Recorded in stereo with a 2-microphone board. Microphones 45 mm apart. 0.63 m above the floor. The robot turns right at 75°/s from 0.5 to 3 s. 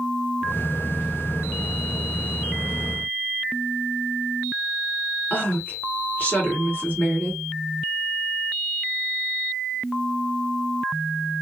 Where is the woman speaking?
35° left (ahead or behind), 1.8 m.